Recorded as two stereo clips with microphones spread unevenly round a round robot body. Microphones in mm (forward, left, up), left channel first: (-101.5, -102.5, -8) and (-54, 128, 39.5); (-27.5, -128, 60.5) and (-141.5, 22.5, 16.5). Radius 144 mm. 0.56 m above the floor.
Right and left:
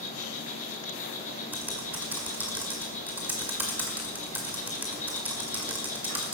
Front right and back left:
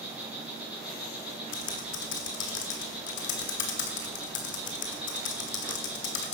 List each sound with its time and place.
0.0 s an insect: 155° right, 5 m
1.5 s typing on a keyboard: 10° right, 1.7 m